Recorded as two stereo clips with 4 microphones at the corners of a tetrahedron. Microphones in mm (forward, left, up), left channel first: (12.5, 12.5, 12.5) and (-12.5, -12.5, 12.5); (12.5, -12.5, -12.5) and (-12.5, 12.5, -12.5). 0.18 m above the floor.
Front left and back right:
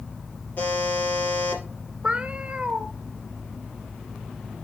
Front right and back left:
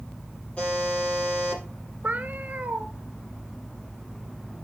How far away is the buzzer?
About 3.5 m.